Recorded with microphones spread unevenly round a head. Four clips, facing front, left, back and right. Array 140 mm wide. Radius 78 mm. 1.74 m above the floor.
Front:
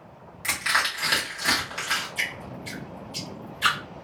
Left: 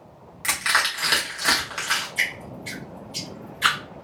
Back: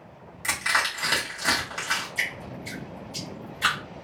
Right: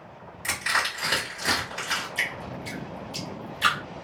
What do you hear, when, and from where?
0.4 s crushing: 165° left, 1.7 m
2.1 s dripping: 155° right, 1.4 m